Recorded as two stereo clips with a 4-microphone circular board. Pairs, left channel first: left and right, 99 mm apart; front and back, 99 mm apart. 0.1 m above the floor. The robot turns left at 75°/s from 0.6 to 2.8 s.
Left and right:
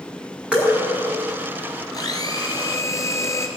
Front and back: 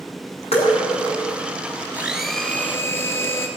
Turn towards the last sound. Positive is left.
turn(degrees=50)